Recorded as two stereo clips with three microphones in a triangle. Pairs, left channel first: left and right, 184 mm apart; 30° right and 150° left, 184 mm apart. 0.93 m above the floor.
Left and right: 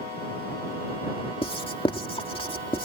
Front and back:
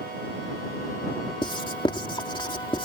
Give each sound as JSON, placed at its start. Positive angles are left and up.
{"t": 1.4, "sound": "writing", "azimuth_deg": 30}